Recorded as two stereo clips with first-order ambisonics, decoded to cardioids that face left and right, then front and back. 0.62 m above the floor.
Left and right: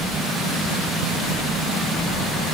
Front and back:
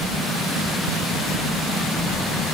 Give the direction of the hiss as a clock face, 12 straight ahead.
No hiss in this recording.